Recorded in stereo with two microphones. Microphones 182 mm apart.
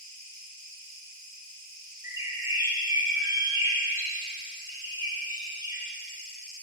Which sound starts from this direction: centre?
A bird, at 2.0 s.